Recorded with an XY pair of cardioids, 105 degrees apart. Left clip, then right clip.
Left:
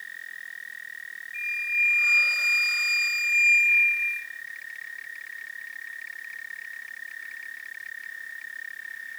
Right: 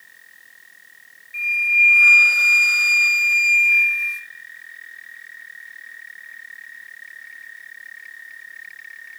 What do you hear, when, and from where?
1.3 s a flute: 60° right, 0.9 m